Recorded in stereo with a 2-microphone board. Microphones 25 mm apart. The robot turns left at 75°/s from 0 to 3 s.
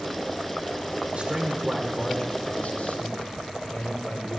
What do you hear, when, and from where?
1.1 s a man speaking: 125° right, 5 m; by 4.4 s 95° left, 5 m